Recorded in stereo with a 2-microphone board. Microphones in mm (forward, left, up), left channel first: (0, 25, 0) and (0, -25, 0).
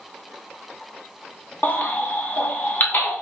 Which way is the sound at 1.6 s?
40° left (ahead or behind).